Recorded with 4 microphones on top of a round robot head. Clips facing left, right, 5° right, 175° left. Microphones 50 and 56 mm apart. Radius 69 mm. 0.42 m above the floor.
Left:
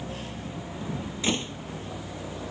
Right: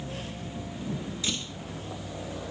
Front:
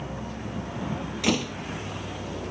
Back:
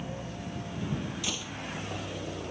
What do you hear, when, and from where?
0.0 s a vehicle: 20° left
1.2 s a door slam: 30° left